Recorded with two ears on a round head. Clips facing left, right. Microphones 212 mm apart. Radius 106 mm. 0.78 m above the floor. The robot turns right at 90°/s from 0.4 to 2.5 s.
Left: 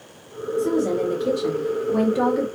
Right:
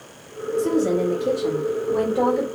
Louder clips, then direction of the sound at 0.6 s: Right 1 dB; 20° right.